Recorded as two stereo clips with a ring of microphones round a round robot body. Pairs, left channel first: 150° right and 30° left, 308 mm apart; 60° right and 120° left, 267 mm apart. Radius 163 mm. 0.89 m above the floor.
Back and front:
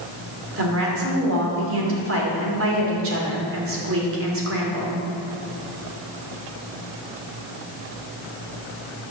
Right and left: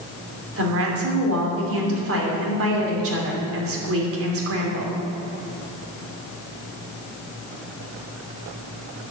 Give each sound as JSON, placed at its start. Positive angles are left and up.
{"t": 0.6, "sound": "a woman speaking", "azimuth_deg": 80, "distance_m": 3.0}